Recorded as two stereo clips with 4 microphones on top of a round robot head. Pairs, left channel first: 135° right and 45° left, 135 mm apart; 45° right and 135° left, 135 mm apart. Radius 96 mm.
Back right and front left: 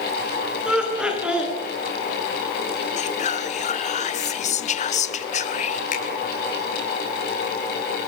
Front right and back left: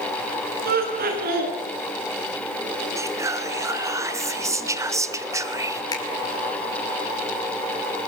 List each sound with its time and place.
0.7 s laughter: 130° left, 9 m
3.0 s whispering: 160° right, 2 m
5.9 s a finger snap: 110° right, 5.5 m